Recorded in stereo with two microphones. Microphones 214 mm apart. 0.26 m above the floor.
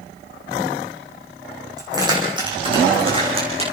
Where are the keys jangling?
15° right (ahead or behind), 8 m; by 3.7 s 30° right (ahead or behind), 9 m.